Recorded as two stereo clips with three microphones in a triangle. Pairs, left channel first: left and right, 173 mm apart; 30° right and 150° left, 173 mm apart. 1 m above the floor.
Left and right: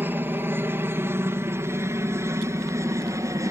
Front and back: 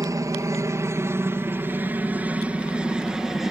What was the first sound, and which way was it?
A helicopter, 160° right.